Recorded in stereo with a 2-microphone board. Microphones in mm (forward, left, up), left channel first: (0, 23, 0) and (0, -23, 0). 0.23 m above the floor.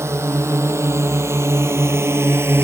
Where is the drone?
80° right; by 2.6 s 55° right (ahead or behind).